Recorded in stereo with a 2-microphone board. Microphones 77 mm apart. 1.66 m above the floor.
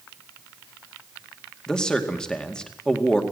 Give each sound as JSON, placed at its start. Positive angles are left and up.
{"t": 1.7, "sound": "a man speaking", "side_deg": 10, "distance_m": 2.0}